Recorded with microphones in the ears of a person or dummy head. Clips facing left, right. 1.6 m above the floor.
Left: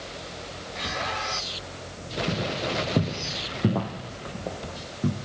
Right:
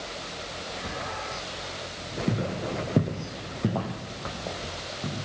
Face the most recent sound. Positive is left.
turn(degrees=30)  # may be behind; listen again after turning